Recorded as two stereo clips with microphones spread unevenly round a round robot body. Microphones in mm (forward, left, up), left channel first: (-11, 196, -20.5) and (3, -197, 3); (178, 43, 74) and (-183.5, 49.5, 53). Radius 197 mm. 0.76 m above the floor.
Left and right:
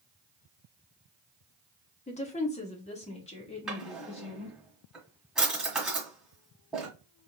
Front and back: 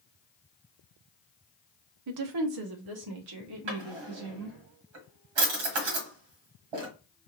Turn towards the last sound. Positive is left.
turn(degrees=-175)